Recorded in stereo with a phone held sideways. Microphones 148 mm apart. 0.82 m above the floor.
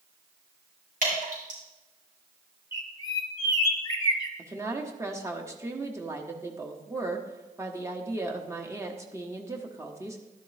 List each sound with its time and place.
1.0 s dripping: 70° right (ahead or behind), 5.5 m
2.7 s a bird: 25° left (ahead or behind), 1.0 m
4.4 s a woman speaking: 20° right (ahead or behind), 1.2 m